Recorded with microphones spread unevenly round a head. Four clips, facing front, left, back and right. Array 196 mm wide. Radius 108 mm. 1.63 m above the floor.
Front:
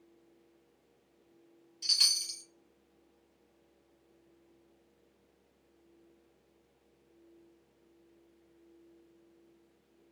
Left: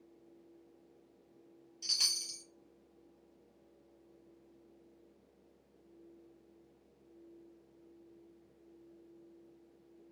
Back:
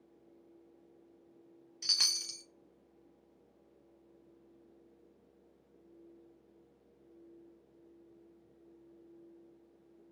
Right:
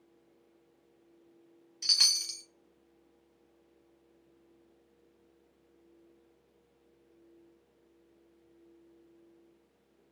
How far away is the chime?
About 0.6 m.